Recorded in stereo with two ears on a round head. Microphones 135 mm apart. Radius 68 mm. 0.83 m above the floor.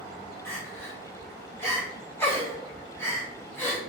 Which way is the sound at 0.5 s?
15° left (ahead or behind).